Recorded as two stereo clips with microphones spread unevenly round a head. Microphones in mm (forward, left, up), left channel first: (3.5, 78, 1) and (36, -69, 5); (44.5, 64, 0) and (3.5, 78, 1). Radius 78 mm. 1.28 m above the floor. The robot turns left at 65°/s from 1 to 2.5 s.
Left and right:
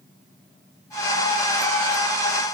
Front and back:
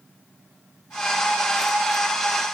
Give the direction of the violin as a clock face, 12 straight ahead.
I don't hear a violin.